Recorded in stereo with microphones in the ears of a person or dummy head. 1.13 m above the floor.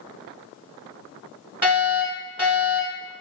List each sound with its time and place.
1.6 s a fire alarm: 10° right (ahead or behind), 1.3 m